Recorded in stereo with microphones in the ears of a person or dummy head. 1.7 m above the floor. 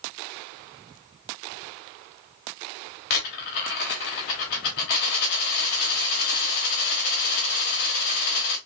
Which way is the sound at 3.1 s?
40° left (ahead or behind).